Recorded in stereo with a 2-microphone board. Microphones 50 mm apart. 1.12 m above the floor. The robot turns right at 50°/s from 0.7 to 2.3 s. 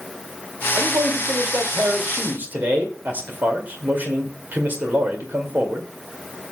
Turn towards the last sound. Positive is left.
turn(degrees=-40)